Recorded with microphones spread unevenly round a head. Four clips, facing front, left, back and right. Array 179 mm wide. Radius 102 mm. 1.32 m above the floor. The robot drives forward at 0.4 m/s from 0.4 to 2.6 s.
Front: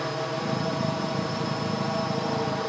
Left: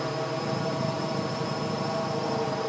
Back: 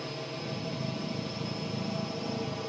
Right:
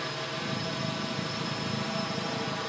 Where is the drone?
55° left; by 2.7 s 60° left.